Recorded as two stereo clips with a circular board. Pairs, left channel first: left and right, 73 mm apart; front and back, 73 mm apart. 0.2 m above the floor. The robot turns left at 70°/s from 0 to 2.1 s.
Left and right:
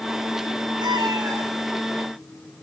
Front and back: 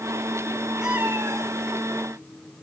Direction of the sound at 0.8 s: 95° right.